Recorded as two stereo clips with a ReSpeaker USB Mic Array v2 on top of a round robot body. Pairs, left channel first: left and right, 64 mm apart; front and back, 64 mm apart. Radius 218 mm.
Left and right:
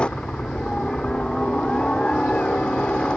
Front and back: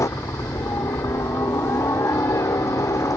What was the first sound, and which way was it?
A helicopter, 20° left.